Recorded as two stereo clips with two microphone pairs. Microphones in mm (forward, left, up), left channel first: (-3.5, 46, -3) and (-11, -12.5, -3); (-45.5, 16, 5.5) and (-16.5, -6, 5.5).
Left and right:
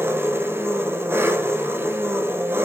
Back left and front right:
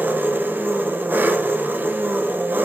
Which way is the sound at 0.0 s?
55° right.